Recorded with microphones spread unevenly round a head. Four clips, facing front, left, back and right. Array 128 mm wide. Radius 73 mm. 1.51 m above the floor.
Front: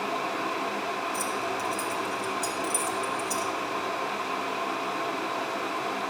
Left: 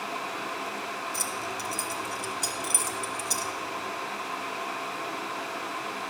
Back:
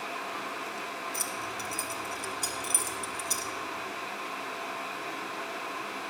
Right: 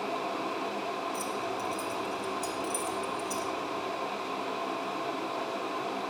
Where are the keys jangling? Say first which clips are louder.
Right 1 dB, front 7 dB; 100° left, 2.0 m.